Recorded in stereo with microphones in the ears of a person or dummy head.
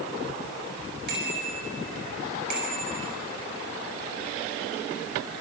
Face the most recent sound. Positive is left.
turn(degrees=-50)  # may be behind; listen again after turning